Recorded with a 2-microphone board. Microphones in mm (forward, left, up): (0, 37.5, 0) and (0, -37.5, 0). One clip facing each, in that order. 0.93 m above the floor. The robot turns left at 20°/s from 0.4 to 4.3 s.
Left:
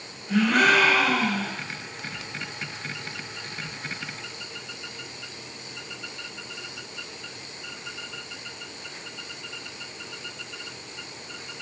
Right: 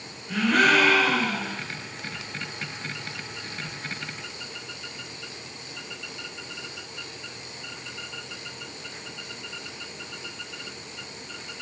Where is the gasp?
15° left (ahead or behind), 3 m; by 1.6 s 10° right (ahead or behind), 3 m.